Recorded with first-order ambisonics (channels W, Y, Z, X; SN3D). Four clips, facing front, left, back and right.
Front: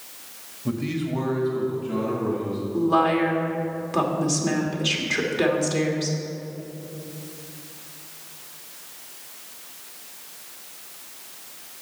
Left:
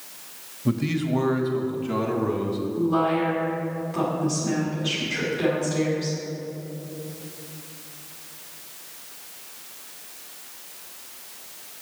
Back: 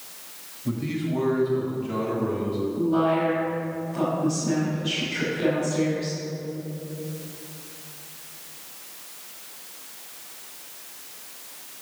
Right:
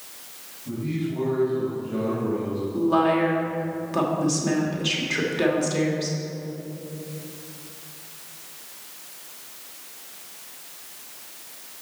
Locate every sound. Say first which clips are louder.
0.7 s a man speaking: left 4 dB, front 1 dB; 70° left, 1.2 m; by 2.6 s 100° left, 2 m
2.7 s a woman speaking: right 3 dB, front 3 dB; 35° right, 1.9 m